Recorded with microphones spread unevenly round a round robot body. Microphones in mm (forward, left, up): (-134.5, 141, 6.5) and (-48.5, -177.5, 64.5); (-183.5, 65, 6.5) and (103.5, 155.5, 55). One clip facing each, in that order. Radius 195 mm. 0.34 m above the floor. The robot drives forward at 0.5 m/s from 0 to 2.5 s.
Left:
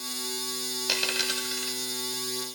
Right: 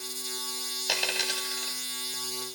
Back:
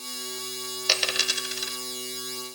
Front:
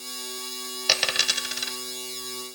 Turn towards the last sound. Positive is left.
turn(degrees=100)